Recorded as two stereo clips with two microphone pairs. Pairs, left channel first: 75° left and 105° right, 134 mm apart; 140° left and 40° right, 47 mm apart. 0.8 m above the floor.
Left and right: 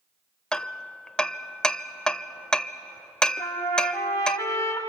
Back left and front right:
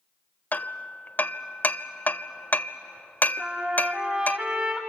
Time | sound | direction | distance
0.5 | hammering | 160° left | 0.6 m
3.4 | a trumpet | 10° left | 4.5 m